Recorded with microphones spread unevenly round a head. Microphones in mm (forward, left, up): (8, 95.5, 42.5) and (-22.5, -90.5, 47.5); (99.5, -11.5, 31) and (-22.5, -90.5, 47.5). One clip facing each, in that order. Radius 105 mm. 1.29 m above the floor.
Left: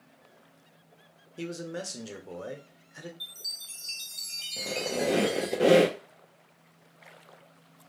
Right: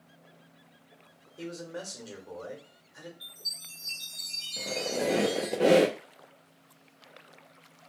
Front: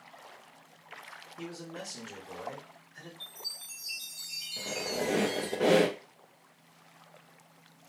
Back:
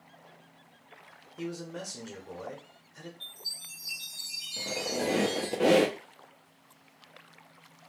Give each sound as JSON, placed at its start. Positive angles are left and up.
{"t": 1.4, "sound": "a man speaking", "azimuth_deg": 135, "distance_m": 1.0}
{"t": 3.2, "sound": "a chime", "azimuth_deg": 85, "distance_m": 0.7}
{"t": 4.6, "sound": "a squeak", "azimuth_deg": 160, "distance_m": 0.6}